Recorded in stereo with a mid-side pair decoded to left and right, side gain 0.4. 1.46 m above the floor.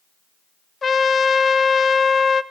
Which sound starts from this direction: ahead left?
A trumpet, at 0.8 s.